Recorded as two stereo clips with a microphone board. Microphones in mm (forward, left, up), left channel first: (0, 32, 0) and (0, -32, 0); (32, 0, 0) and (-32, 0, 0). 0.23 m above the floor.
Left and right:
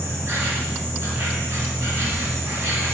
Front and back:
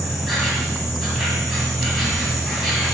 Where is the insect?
90° right, 1.5 m.